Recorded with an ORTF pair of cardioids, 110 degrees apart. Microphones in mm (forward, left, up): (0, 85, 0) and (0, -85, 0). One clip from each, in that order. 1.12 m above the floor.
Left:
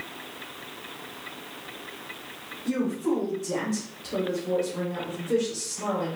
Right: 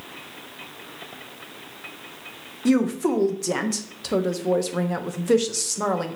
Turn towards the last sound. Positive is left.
turn(degrees=-70)